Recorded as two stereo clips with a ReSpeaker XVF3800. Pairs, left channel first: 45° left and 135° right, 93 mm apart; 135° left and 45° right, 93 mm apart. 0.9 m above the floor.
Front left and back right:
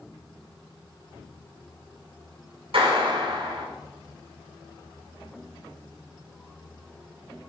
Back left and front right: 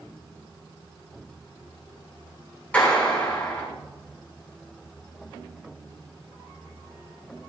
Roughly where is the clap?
Behind right.